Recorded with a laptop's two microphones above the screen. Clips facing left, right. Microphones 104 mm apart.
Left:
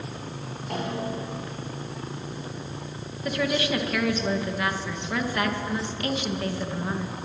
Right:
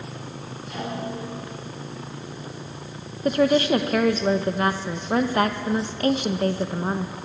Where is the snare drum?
60° left (ahead or behind), 9 m.